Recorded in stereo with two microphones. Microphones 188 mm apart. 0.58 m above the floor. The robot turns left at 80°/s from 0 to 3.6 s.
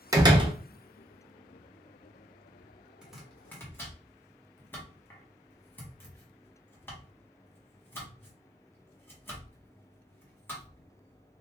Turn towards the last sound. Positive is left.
turn(degrees=10)  # may be behind; listen again after turning